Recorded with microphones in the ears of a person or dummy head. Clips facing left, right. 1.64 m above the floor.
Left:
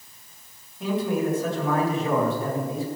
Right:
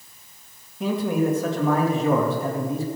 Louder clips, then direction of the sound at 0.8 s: Right 2 dB; 60° right (ahead or behind).